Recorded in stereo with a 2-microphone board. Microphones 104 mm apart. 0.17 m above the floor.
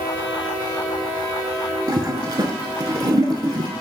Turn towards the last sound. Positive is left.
turn(degrees=-40)  # may be behind; listen again after turning